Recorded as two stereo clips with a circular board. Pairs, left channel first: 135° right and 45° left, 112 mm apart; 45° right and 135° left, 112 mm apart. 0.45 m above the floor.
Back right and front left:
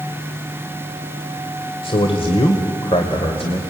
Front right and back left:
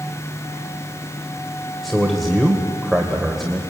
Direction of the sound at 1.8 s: 135° right.